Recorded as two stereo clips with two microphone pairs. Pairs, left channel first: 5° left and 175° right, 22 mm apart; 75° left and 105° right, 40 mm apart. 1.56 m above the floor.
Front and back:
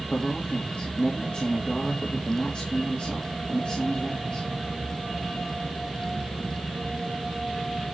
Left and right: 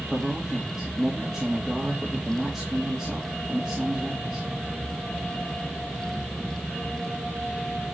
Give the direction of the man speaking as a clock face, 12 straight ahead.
1 o'clock.